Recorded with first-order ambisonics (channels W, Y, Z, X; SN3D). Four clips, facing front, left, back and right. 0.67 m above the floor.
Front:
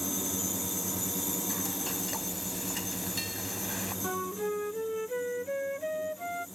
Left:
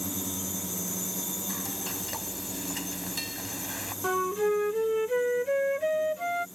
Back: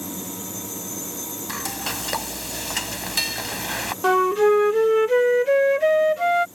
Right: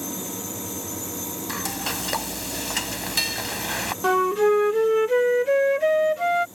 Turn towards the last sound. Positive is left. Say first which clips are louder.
# right 7 dB, back 18 dB
turn(degrees=-150)